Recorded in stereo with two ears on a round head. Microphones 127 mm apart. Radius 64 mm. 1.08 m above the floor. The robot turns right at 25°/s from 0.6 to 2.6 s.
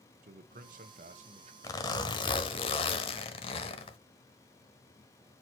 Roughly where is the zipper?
Left.